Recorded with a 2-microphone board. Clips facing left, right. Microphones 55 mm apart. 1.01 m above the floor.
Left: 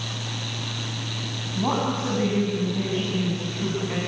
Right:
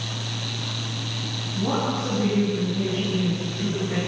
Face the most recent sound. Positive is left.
turn(degrees=65)  # may be behind; listen again after turning